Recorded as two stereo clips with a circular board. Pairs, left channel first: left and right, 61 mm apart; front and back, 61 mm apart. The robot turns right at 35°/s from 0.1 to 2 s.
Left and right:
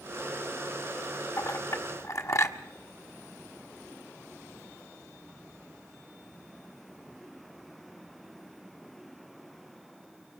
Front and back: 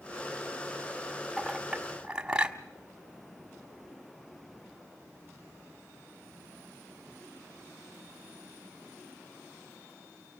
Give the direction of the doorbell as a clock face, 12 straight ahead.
No doorbell in this recording.